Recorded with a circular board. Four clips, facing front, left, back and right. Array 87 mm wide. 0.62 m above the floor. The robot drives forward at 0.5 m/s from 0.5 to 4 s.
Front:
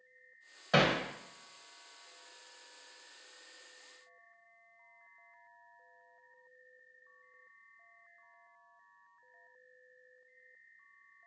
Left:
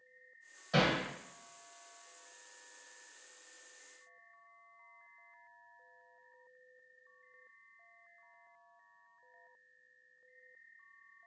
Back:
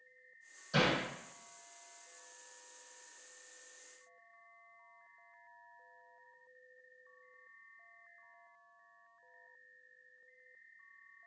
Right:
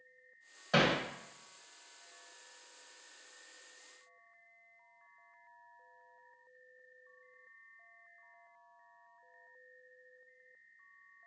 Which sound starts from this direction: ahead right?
Hammering, at 0.7 s.